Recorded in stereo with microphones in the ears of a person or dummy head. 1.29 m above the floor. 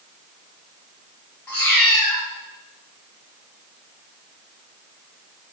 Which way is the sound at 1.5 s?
5° left (ahead or behind).